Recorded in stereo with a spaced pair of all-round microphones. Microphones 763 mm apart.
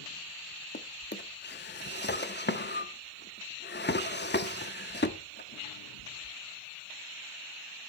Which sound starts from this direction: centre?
A drawer, at 0.7 s.